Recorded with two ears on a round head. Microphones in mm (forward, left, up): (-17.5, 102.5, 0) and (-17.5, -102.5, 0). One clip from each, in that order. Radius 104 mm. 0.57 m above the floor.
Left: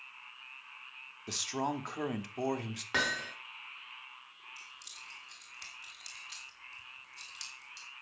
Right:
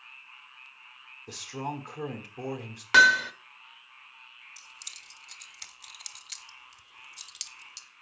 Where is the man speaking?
45° left (ahead or behind), 1.3 m.